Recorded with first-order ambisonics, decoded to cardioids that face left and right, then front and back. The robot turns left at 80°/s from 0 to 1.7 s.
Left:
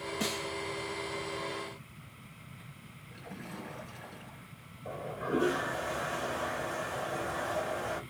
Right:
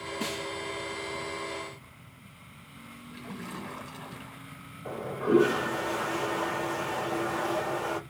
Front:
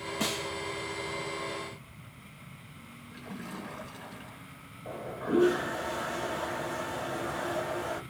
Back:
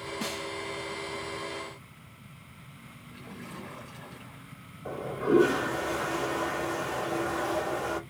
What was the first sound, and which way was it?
A snare drum, 20° left.